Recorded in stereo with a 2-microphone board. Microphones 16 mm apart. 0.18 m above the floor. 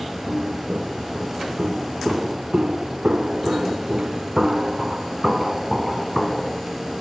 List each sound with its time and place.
0.3 s footsteps: 75° right (ahead or behind), 4.5 m; by 6.6 s 5° left (ahead or behind), 2.5 m